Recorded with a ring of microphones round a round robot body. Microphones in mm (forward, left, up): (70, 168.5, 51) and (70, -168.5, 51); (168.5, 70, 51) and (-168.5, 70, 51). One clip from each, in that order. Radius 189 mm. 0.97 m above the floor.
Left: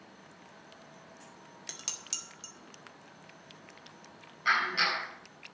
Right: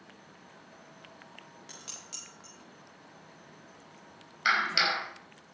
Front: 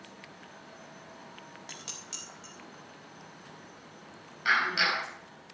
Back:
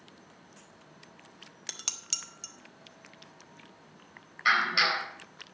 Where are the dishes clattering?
145° left, 1.5 m.